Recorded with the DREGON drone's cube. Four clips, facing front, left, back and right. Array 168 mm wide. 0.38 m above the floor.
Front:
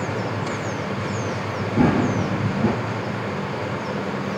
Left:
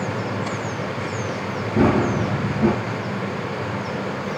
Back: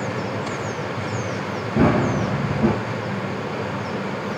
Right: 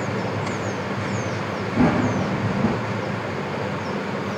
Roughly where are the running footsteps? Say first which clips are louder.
Left 2 dB, back 1 dB; behind left.